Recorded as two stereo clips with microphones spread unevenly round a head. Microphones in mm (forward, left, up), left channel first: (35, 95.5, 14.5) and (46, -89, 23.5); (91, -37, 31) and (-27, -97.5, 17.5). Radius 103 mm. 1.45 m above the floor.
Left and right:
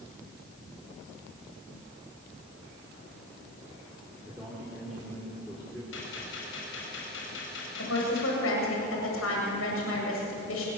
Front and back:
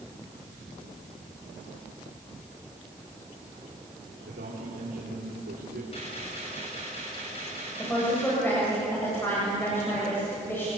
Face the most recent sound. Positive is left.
turn(degrees=105)